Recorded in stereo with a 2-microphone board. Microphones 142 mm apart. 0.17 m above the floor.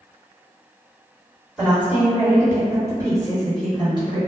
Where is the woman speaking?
5° right (ahead or behind), 1.7 m; by 4.2 s 35° right (ahead or behind), 2.5 m.